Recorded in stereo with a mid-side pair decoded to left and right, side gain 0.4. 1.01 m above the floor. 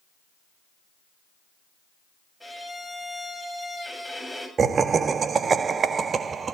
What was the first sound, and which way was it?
A violin, 5° right.